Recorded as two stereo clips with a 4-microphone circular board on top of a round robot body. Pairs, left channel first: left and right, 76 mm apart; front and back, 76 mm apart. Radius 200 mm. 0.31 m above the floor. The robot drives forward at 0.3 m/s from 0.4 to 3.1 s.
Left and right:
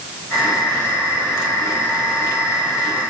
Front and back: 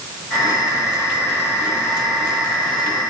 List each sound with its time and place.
Only background noise.